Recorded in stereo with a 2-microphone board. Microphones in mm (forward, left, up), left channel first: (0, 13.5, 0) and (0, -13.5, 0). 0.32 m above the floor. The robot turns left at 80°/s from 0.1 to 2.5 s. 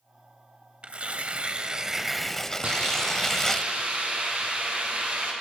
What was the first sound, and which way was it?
Tearing paper, 70° right.